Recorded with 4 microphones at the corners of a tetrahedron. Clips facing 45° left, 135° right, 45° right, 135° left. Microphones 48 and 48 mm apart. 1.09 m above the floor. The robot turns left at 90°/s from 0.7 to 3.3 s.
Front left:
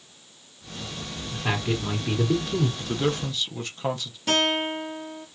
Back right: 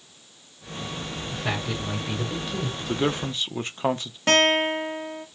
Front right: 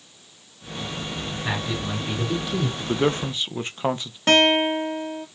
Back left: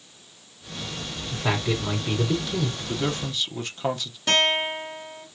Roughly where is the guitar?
Right.